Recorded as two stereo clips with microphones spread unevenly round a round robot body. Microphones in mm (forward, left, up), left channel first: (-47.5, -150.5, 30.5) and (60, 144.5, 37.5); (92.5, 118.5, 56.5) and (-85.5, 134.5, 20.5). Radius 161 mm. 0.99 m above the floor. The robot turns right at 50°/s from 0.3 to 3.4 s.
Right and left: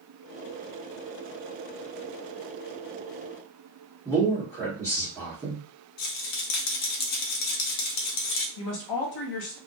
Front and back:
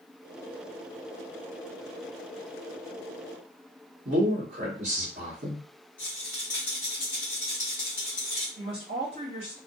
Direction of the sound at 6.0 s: 80° right.